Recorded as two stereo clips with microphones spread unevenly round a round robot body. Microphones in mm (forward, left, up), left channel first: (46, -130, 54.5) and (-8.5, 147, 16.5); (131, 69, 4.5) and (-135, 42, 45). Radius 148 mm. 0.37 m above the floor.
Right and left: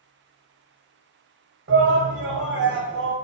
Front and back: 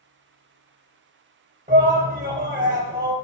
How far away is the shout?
About 2.0 m.